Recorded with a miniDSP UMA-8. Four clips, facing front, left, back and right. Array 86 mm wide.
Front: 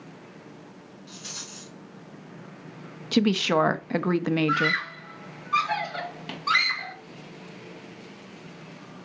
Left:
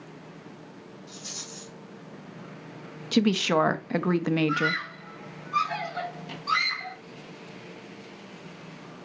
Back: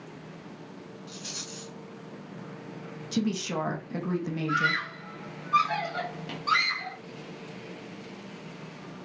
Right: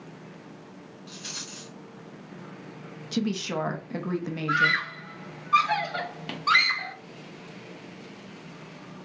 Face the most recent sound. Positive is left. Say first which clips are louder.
# right 3 dB, front 2 dB
turn(degrees=-65)